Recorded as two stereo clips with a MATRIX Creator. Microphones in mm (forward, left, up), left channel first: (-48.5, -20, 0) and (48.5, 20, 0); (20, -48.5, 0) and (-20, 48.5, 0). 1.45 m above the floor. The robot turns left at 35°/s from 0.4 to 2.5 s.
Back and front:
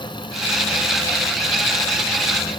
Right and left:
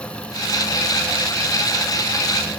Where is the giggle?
I don't hear a giggle.